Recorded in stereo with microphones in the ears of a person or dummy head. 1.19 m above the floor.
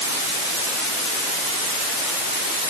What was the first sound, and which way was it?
Only background noise.